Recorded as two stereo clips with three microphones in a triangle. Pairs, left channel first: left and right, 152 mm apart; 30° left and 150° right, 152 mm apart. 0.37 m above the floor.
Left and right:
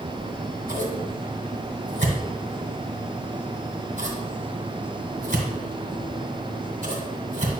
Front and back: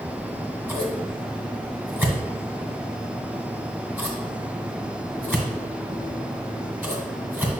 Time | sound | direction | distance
0.2 | scissors | 70° right | 1.9 m